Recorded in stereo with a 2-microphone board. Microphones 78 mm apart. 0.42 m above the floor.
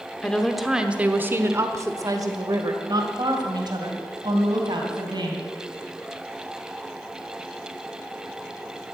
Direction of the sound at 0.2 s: 15° left (ahead or behind).